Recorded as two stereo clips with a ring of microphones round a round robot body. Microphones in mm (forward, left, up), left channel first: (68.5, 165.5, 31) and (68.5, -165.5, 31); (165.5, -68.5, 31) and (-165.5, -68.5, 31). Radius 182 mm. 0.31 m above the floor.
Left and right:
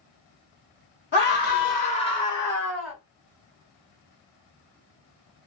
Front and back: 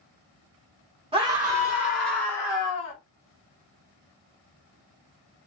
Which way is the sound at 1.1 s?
115° left.